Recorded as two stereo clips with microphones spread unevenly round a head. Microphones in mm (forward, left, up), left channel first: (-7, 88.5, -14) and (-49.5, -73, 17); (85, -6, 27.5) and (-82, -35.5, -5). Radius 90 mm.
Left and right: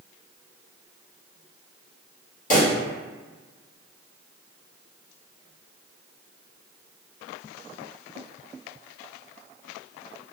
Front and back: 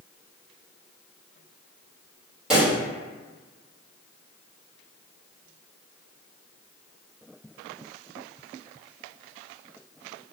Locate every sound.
2.5 s a pop: 90° left, 1.4 m